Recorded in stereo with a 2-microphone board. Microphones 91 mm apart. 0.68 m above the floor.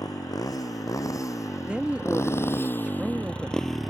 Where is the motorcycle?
40° left (ahead or behind); by 3.9 s 5° right (ahead or behind).